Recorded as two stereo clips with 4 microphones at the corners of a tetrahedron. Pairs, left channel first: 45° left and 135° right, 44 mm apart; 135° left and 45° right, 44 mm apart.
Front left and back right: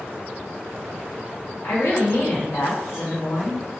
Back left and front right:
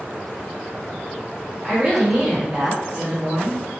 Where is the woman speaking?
30° left, 1.4 m.